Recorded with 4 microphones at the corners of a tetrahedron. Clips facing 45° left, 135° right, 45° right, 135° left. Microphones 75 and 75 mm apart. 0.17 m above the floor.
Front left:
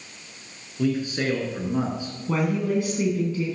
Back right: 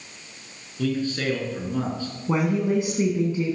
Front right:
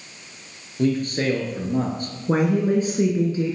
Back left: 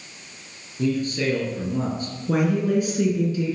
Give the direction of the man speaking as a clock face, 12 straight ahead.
1 o'clock.